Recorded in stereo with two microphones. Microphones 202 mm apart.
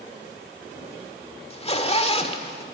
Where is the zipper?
30° left (ahead or behind), 1.7 m.